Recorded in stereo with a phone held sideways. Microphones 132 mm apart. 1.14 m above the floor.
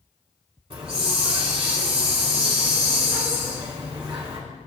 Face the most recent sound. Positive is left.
turn(degrees=-45)  # may be behind; listen again after turning